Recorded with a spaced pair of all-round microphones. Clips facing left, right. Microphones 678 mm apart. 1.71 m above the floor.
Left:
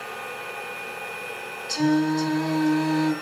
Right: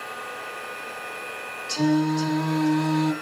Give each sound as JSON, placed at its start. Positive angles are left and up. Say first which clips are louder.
{"t": 0.0, "sound": "a machine running", "louder": "left 2 dB", "side_deg": 55, "distance_m": 5.0}
{"t": 1.7, "sound": "singing", "louder": "even", "side_deg": -55, "distance_m": 2.0}